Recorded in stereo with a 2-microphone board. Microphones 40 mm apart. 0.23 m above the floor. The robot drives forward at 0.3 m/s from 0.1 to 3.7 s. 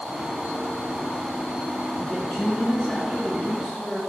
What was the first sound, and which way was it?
A woman speaking, 10° right (ahead or behind).